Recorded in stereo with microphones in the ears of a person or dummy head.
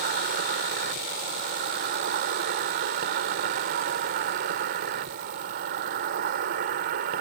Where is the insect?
45° right (ahead or behind).